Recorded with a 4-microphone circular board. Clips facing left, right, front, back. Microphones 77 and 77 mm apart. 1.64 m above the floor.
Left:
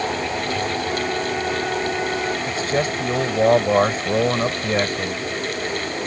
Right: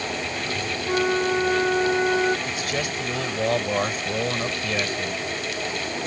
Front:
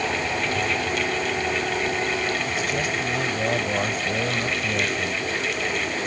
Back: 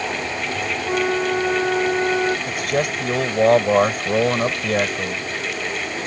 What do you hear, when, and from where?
0.9 s a flute: 150° right
2.5 s a man speaking: 145° left